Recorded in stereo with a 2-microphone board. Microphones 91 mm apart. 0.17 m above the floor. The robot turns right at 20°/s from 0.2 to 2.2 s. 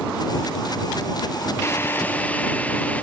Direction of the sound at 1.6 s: 30° left (ahead or behind).